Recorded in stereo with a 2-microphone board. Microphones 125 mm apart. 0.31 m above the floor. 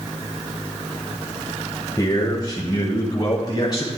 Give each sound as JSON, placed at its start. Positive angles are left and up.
{"t": 2.0, "sound": "a man speaking", "side_deg": 30, "distance_m": 1.6}